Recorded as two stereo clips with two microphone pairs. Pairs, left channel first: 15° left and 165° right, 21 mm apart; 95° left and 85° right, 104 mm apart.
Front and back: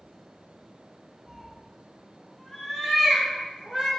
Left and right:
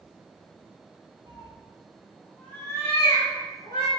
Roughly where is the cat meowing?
Ahead right.